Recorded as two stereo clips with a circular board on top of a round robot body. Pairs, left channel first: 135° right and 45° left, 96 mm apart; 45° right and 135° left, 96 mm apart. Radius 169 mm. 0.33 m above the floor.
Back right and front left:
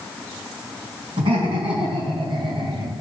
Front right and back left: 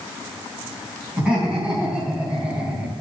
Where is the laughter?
55° left, 4 m; by 2.9 s 60° left, 1.6 m.